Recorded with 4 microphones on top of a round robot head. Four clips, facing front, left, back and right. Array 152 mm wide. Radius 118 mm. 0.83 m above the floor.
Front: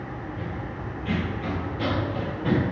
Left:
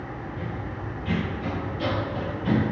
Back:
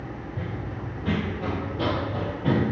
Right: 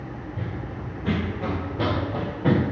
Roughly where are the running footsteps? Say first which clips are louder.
Even, even; behind right.